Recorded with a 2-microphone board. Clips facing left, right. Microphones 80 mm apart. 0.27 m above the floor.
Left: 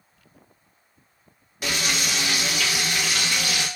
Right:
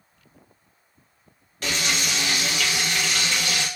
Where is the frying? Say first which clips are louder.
Even; 10° left (ahead or behind), 0.7 m.